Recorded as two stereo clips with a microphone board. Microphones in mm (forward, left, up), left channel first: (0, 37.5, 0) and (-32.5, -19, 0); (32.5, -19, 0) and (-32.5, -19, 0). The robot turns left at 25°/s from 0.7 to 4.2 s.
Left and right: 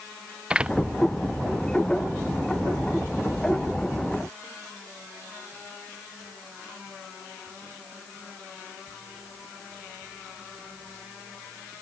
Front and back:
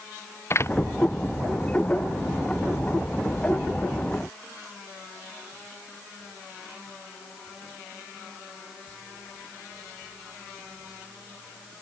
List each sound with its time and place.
0.5 s a door slam: 45° right